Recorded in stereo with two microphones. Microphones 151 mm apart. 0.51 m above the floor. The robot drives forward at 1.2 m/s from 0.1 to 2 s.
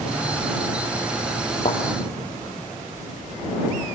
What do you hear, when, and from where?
1.6 s a thud: 50° left (ahead or behind), 2.5 m; by 1.8 s 55° left (ahead or behind), 2.5 m